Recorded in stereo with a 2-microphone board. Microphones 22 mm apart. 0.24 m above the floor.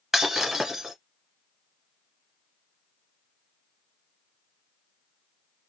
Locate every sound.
0.1 s breaking glass: 10° right (ahead or behind), 1.3 m